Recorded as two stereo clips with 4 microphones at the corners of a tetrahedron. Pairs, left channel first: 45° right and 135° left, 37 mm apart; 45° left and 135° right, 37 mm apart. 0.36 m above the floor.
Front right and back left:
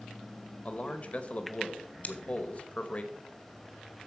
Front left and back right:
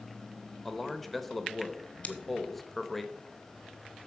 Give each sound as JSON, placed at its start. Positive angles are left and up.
{"t": 0.7, "sound": "a man speaking", "azimuth_deg": -40, "distance_m": 1.0}
{"t": 2.0, "sound": "scissors", "azimuth_deg": 0, "distance_m": 1.1}